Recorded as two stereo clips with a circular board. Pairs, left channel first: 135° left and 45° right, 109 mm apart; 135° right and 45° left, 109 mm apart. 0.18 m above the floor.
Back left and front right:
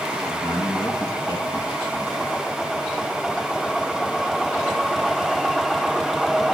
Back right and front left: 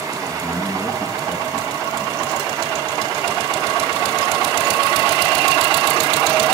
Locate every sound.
0.3 s a man speaking: 110° left, 1.8 m